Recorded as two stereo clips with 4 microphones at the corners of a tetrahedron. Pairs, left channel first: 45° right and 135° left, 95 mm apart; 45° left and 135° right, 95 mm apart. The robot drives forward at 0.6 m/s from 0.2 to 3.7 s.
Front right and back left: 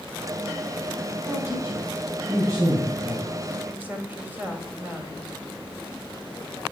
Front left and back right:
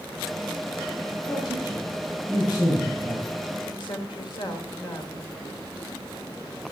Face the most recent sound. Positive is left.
turn(degrees=65)